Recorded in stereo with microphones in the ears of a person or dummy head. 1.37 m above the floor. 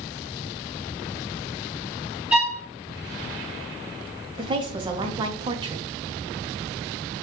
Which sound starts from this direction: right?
A woman speaking, at 4.4 s.